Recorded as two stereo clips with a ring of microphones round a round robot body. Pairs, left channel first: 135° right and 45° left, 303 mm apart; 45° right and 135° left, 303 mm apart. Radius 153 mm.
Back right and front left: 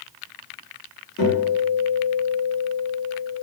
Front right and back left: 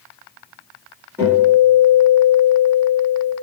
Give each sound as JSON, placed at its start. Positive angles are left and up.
{"t": 1.2, "sound": "a guitar", "azimuth_deg": -145, "distance_m": 1.7}